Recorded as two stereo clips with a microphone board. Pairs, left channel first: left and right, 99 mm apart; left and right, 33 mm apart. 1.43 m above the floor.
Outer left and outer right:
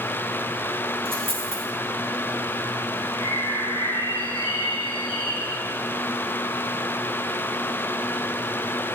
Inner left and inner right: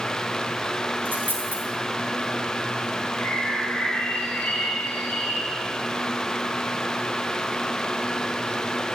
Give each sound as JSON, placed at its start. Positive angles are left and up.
{"t": 1.1, "sound": "a dropped coin", "side_deg": -75, "distance_m": 3.5}
{"t": 3.2, "sound": "a bird", "side_deg": 70, "distance_m": 7.0}